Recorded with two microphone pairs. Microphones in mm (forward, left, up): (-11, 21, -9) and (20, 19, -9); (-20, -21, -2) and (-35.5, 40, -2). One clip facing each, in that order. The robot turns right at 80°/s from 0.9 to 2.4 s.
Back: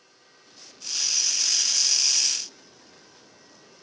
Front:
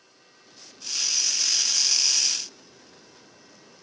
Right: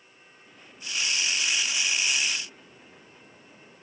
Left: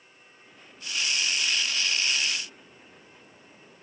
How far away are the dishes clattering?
No dishes clattering in this recording.